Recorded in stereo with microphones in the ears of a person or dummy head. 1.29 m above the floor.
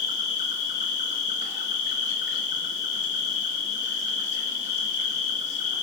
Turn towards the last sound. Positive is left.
turn(degrees=45)  # may be behind; listen again after turning